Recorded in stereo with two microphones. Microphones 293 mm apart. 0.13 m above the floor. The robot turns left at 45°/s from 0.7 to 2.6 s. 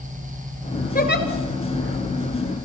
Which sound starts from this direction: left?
A giggle, at 0.9 s.